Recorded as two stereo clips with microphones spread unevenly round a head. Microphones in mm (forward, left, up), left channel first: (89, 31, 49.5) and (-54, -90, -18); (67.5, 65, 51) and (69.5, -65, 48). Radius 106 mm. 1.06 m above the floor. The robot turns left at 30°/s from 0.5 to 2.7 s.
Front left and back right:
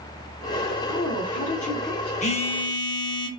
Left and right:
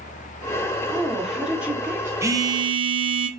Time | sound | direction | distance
0.9 | a woman speaking | 5° left | 0.6 m
2.2 | a phone buzzing | 20° right | 0.5 m